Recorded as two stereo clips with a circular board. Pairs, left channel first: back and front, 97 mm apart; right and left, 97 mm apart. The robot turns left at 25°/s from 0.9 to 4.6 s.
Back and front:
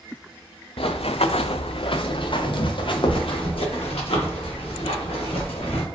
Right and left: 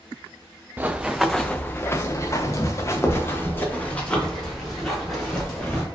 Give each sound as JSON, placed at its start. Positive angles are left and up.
{"t": 0.8, "sound": "running footsteps", "azimuth_deg": 160, "distance_m": 0.6}